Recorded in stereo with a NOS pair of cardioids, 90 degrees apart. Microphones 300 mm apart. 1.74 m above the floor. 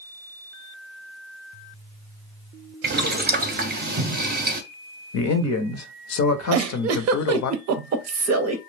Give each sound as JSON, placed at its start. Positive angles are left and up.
{"t": 2.8, "sound": "boiling", "azimuth_deg": -30, "distance_m": 0.6}
{"t": 5.1, "sound": "a man speaking", "azimuth_deg": 60, "distance_m": 0.6}
{"t": 6.5, "sound": "a giggle", "azimuth_deg": -60, "distance_m": 0.6}